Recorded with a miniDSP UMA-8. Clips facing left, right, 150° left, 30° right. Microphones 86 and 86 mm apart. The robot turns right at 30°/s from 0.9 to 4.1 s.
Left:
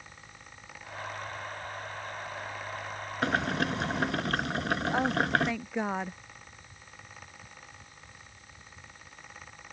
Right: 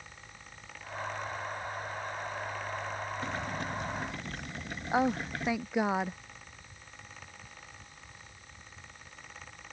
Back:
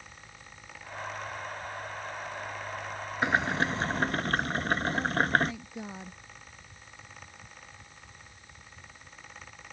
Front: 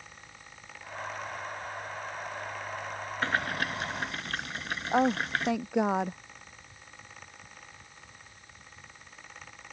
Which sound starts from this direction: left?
Boiling, at 3.2 s.